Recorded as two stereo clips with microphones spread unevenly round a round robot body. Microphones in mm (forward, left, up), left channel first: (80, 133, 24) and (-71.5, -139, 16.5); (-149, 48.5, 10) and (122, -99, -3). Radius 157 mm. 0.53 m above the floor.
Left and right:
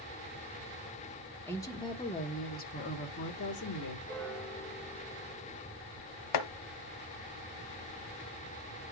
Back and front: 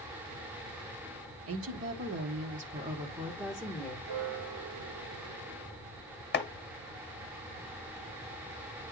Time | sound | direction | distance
1.5 | a woman speaking | 20° right | 1.7 m
4.1 | a piano | 30° right | 2.5 m
6.3 | chopping | 90° left | 1.0 m